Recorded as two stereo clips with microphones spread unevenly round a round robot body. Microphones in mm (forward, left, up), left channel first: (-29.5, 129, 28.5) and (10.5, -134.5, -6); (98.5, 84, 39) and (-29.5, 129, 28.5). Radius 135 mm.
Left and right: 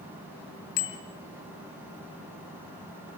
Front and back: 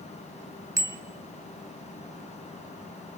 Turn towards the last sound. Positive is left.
turn(degrees=95)